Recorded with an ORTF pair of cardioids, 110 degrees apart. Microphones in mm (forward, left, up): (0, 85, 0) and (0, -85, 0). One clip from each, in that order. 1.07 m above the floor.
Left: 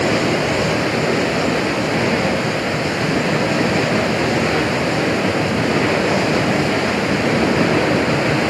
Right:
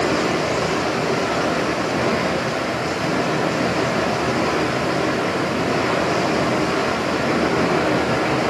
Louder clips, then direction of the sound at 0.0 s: Left 2 dB; 35° left.